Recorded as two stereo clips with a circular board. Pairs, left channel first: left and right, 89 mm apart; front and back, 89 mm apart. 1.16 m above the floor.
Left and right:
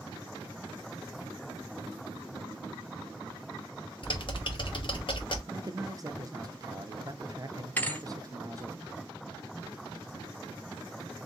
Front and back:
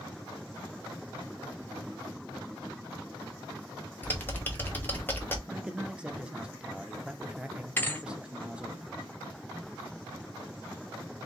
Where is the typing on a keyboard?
70° left, 1.2 m.